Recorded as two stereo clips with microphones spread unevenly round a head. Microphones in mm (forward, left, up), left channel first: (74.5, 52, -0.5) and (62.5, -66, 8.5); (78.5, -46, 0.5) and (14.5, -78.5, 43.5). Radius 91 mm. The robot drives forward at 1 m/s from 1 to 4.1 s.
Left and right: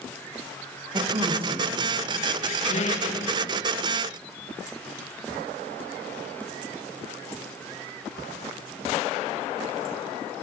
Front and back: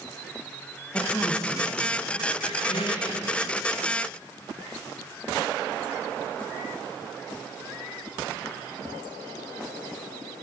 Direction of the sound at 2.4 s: 75° left.